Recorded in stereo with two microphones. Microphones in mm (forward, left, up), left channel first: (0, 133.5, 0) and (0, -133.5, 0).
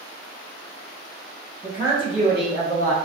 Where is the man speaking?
Centre (ahead or behind), 1.0 m; by 2.9 s 60° right (ahead or behind), 1.2 m.